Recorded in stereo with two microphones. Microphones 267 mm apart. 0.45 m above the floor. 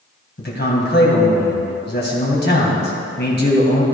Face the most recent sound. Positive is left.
turn(degrees=40)  # may be behind; listen again after turning